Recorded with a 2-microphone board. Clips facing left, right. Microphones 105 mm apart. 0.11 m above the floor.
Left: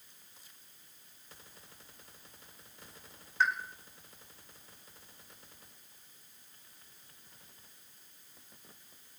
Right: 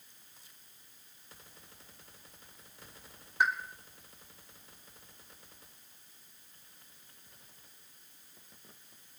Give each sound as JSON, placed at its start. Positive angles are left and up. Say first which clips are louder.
{"t": 3.4, "sound": "a pop", "louder": "right 1 dB", "side_deg": -15, "distance_m": 1.7}